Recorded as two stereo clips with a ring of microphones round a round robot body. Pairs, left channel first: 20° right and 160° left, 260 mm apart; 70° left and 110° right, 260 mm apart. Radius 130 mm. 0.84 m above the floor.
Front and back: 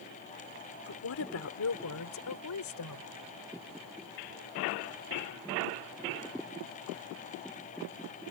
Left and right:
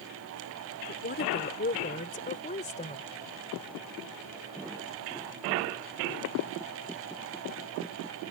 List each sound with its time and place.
0.9 s a woman speaking: 15° left; by 3.0 s straight ahead